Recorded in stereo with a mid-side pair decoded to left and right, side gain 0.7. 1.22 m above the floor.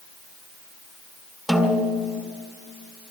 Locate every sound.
1.5 s a snare drum: 5° right, 2.5 m